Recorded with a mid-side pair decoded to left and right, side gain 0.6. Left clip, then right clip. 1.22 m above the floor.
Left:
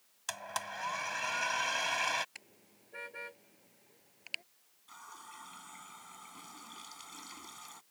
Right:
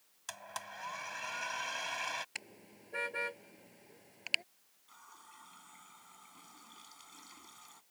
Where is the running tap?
30° left.